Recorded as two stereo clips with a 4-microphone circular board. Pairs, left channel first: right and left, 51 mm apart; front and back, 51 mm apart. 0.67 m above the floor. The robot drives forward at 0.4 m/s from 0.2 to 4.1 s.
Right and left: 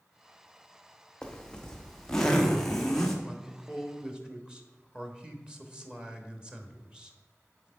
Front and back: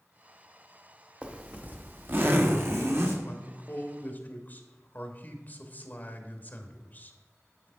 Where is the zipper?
145° right, 0.8 m; by 3.1 s 170° right, 1.3 m.